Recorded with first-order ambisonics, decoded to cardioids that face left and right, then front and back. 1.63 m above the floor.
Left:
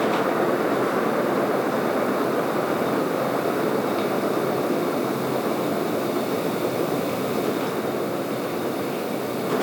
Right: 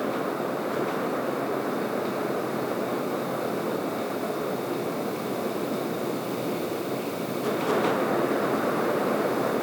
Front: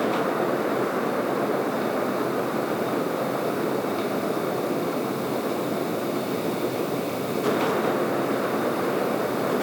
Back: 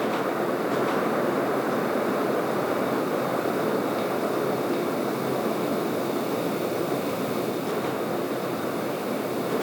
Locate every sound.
Only background noise.